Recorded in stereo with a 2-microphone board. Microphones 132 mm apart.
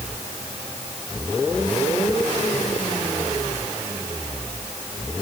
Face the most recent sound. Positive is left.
No sound to turn to.